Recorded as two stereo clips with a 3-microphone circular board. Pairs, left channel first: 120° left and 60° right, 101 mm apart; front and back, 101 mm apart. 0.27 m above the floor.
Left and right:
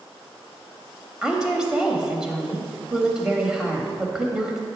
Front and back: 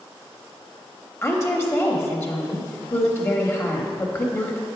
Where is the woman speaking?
15° left, 1.0 m.